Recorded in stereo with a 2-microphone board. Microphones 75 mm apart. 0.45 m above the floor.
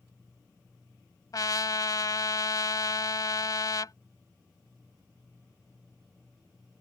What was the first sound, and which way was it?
A trumpet, 60° left (ahead or behind).